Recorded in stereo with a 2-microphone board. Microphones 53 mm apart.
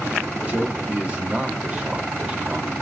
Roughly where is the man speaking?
Right.